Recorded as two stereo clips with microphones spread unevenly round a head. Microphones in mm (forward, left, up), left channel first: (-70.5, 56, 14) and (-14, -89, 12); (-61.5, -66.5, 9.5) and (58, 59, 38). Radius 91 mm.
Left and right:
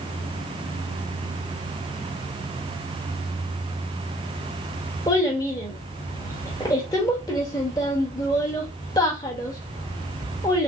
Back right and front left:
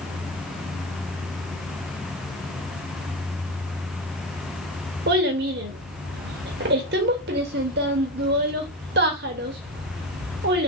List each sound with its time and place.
5.1 s a child speaking: 40° left, 0.9 m